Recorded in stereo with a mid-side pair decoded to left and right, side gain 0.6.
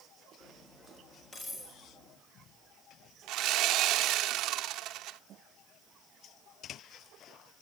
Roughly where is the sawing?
Ahead right.